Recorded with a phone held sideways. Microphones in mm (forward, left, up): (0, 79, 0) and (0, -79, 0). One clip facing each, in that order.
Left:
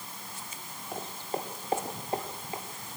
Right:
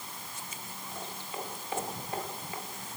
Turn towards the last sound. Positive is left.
turn(degrees=25)  # may be behind; listen again after turning